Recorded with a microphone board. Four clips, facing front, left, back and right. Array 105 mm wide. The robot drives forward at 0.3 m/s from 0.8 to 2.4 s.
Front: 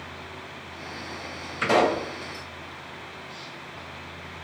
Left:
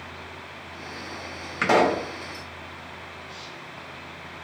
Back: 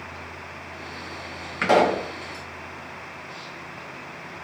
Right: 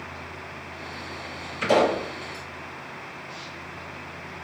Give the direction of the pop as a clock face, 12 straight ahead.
8 o'clock.